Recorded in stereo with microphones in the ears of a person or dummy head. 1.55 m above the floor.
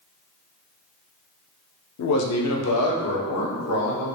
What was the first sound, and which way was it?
A man speaking, 90° left.